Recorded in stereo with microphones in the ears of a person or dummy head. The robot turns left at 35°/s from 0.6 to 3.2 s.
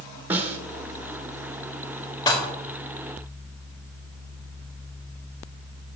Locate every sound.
0.3 s a snare drum: 15° right (ahead or behind), 1.5 m
2.3 s dishes clattering: 20° left (ahead or behind), 1.8 m; by 2.5 s 10° left (ahead or behind), 1.8 m